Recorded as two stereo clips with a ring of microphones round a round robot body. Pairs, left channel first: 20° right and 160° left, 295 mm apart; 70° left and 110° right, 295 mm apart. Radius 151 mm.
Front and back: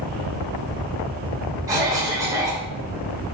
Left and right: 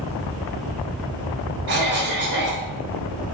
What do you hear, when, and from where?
1.7 s a cough: 130° right, 0.6 m